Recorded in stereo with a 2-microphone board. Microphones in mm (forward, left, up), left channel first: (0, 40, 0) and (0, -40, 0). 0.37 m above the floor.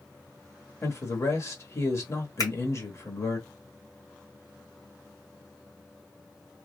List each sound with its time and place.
0.8 s a man speaking: 40° left (ahead or behind), 1.0 m
2.4 s a finger snap: 55° left (ahead or behind), 1.8 m